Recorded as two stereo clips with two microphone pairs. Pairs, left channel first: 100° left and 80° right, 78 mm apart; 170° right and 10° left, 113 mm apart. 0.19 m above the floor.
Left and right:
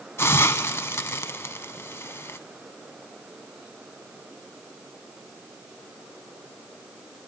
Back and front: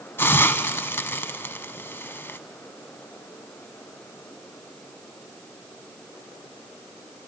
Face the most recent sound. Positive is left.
turn(degrees=135)